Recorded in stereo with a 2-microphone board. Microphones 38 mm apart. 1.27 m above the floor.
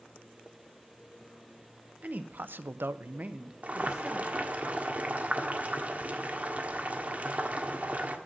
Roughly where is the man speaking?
Right.